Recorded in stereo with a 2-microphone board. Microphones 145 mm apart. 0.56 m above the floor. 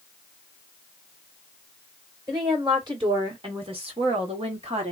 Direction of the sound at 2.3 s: 30° right (ahead or behind).